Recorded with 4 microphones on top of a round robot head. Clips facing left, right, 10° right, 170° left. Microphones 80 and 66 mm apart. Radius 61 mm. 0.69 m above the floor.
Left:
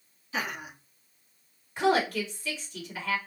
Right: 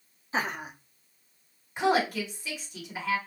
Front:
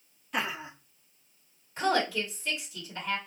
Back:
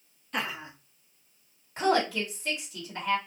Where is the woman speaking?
165° right, 1.7 m.